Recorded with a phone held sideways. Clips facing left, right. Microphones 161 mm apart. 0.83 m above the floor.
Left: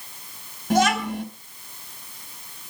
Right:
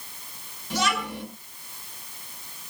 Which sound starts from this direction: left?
A child speaking, at 0.7 s.